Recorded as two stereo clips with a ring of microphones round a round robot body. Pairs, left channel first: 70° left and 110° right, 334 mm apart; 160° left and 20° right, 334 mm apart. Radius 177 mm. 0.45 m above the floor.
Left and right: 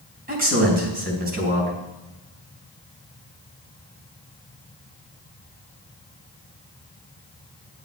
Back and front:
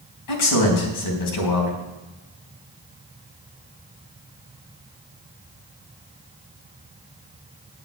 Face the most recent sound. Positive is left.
turn(degrees=-175)